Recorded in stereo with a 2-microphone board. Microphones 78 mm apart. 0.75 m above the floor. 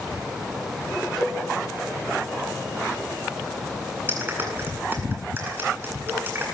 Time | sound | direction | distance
1.2 | a cowbell | 5° left (ahead or behind) | 4.5 m
4.1 | a clap | 25° right (ahead or behind) | 8 m